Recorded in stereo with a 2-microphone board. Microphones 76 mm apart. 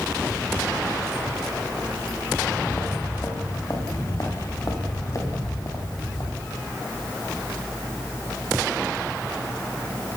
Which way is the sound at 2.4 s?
35° left (ahead or behind).